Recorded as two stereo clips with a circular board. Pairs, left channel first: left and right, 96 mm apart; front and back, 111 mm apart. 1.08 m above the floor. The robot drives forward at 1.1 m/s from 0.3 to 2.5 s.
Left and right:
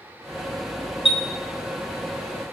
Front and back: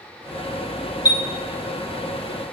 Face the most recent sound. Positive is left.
turn(degrees=155)